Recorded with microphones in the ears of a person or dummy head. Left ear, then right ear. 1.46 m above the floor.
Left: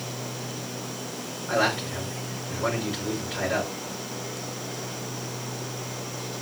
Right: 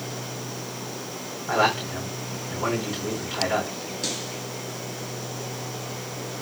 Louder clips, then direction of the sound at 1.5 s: Right 2 dB; 30° right (ahead or behind).